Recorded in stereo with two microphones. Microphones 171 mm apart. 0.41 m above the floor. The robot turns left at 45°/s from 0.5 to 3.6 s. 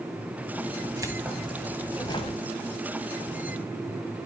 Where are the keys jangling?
155° right, 1.4 m; by 2.4 s 140° left, 1.4 m.